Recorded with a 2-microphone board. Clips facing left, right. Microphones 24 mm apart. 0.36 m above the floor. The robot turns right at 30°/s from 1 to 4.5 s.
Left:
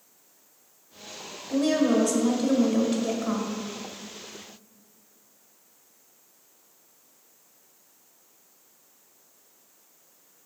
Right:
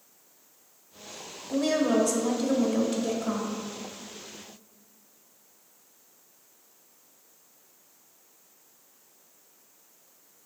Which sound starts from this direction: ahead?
A woman speaking, at 1.5 s.